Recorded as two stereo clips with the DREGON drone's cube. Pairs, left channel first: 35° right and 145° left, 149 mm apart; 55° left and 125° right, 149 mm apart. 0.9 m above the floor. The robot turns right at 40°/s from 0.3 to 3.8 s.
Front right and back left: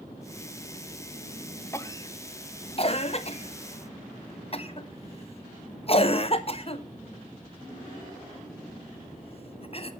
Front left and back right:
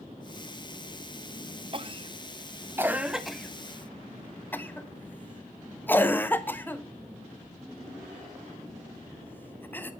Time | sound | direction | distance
1.7 | a cough | 100° right | 1.2 m